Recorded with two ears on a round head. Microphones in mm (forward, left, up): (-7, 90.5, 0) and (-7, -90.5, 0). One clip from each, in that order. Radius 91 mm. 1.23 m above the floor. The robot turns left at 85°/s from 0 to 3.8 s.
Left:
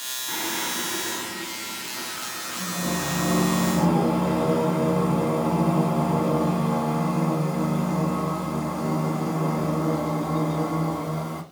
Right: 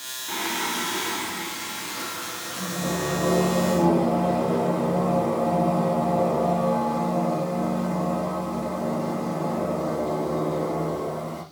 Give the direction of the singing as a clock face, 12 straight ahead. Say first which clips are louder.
Right 2 dB; 12 o'clock.